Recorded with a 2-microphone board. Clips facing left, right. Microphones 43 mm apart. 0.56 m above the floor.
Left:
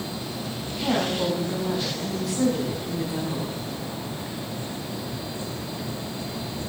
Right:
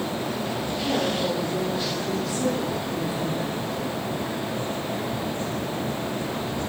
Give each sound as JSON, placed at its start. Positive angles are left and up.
{"t": 0.8, "sound": "a woman speaking", "side_deg": 80, "distance_m": 5.0}